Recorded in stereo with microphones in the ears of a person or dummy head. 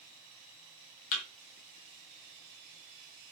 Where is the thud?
40° left (ahead or behind), 0.6 m.